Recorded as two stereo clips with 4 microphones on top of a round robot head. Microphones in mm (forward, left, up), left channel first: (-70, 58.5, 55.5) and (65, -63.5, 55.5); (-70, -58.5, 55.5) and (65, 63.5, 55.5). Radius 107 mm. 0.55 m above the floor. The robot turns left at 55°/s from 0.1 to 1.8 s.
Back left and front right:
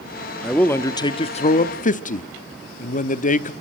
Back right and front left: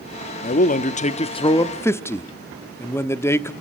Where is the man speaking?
135° right, 1.0 m; by 3.5 s 150° left, 1.0 m.